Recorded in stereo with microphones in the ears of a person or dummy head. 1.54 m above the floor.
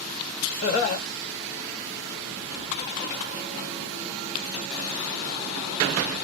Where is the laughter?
40° left (ahead or behind), 1.9 m.